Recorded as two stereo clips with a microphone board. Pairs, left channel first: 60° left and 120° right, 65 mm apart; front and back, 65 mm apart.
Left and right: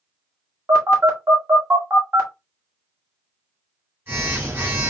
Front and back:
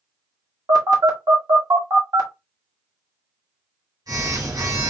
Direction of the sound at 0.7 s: 170° right.